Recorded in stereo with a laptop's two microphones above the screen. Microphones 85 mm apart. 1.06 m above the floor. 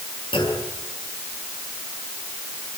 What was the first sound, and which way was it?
A clunk, 75° left (ahead or behind).